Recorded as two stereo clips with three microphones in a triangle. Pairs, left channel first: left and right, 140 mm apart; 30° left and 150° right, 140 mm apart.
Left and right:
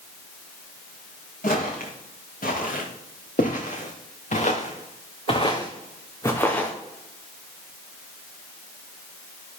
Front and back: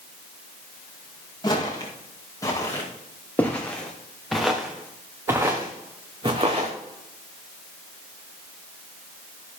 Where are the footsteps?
85° left, 4 m; by 6.7 s 170° left, 2.5 m.